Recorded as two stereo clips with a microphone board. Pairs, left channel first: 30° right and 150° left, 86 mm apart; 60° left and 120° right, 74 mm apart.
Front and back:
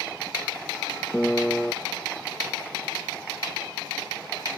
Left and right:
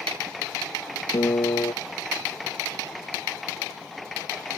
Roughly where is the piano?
Ahead left.